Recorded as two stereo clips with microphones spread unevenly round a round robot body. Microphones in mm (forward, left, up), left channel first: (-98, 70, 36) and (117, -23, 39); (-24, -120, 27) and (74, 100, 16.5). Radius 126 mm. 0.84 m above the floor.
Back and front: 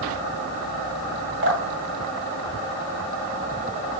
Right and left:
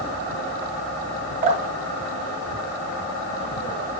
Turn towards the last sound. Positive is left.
turn(degrees=10)